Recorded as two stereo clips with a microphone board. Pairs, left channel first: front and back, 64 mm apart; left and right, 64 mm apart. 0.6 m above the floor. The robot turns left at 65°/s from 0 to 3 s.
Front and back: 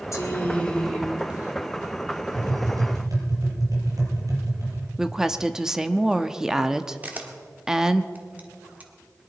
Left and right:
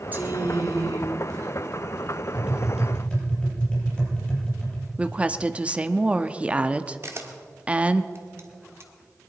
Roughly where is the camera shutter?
Behind right.